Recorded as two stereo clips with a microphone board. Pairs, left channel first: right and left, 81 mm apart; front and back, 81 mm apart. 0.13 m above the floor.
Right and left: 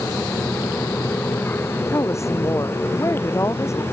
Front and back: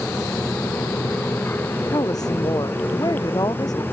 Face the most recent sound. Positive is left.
turn(degrees=-35)